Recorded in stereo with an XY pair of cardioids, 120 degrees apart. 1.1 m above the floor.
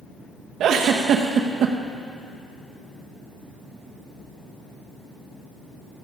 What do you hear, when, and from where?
0.6 s a giggle: 55° right, 0.8 m